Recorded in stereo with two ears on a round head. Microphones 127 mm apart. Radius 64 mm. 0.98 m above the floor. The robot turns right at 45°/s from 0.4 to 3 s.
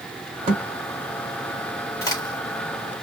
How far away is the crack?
About 1.8 m.